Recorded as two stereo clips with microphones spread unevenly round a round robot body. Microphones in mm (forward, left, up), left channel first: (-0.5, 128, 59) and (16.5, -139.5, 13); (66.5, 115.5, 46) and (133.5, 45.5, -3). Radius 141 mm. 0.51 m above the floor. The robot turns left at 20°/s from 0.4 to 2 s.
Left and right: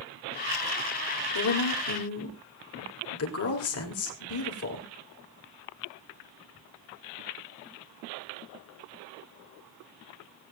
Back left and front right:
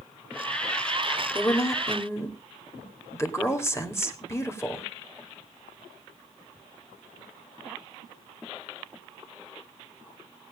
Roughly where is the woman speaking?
Left.